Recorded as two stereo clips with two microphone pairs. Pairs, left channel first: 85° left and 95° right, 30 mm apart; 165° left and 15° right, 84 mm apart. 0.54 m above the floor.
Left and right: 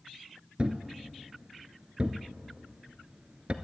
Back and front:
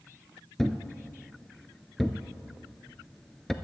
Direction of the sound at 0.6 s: 115° right.